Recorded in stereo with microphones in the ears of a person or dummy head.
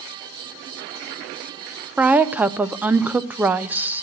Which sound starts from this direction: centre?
A woman speaking, at 2.0 s.